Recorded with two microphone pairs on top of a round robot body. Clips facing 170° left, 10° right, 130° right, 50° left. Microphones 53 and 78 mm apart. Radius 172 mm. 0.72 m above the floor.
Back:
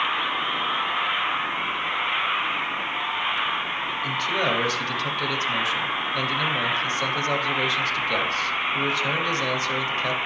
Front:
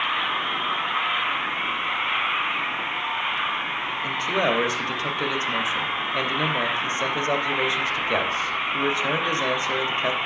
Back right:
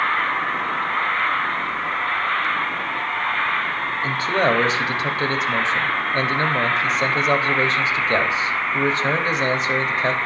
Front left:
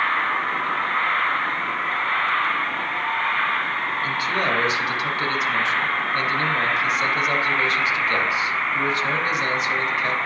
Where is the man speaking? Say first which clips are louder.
Front 2 dB, back right 6 dB; 75° right, 1.5 m.